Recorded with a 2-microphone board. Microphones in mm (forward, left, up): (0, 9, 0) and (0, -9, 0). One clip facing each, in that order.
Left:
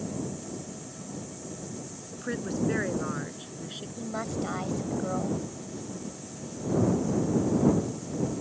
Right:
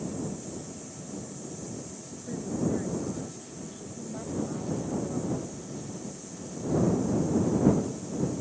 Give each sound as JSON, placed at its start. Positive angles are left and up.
{"t": 2.1, "sound": "a woman speaking", "side_deg": 90}
{"t": 4.0, "sound": "a woman speaking", "side_deg": 55}